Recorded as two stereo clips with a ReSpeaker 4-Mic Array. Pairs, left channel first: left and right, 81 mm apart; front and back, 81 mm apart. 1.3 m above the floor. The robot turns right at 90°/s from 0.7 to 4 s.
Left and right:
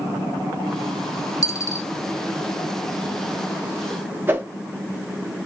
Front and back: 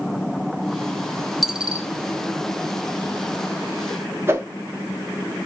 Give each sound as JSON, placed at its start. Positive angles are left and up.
{"t": 1.4, "sound": "a dropped coin", "azimuth_deg": 95, "distance_m": 0.7}
{"t": 4.3, "sound": "a whoosh", "azimuth_deg": -140, "distance_m": 0.9}